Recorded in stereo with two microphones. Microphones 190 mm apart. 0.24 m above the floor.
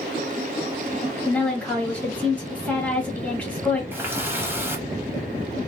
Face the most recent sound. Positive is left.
turn(degrees=-10)  # may be behind; listen again after turning